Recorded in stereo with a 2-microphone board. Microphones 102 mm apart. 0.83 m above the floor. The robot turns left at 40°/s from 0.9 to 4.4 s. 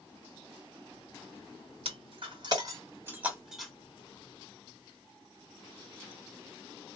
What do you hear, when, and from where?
1.9 s breaking glass: 65° right (ahead or behind), 2.0 m; by 3.7 s 5° left (ahead or behind), 2.0 m